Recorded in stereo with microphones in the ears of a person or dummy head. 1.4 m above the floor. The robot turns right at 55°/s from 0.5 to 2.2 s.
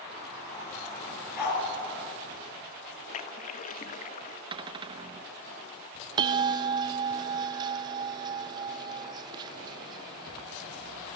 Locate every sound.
1.4 s a dog barking: 50° left (ahead or behind), 8 m; by 1.6 s 60° left (ahead or behind), 8 m
3.1 s a splash: 40° left (ahead or behind), 1.0 m
4.5 s a cupboard door: 25° right (ahead or behind), 0.9 m
6.2 s a bell: 25° right (ahead or behind), 1.0 m